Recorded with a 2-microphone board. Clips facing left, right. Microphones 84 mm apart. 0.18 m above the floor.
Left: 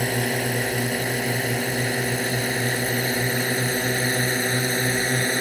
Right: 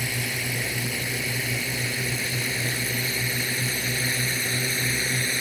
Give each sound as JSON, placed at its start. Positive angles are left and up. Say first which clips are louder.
{"t": 0.0, "sound": "a drone", "louder": "left 7 dB", "side_deg": 45}